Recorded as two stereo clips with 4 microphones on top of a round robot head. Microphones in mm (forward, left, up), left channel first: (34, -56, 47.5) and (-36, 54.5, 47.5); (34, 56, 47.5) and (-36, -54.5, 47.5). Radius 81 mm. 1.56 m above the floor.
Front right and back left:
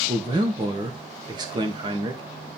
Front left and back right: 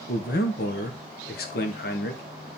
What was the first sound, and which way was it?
A man speaking, 65° left.